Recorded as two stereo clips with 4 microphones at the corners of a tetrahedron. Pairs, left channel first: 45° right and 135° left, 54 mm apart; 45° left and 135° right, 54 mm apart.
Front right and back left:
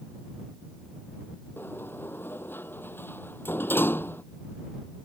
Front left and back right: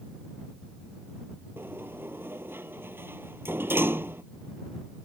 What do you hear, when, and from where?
1.6 s a sliding door: 90° right